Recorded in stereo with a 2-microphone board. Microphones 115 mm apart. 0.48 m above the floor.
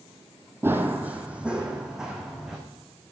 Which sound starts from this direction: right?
Running footsteps, at 0.6 s.